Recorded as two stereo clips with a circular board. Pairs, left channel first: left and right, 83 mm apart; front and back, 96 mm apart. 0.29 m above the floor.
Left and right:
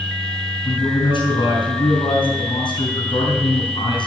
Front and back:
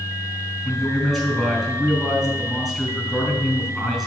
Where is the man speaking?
90° left, 3 m.